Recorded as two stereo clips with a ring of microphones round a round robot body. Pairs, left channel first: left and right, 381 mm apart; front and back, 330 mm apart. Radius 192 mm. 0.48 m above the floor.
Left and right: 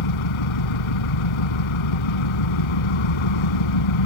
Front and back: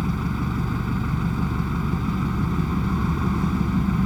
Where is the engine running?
90° left.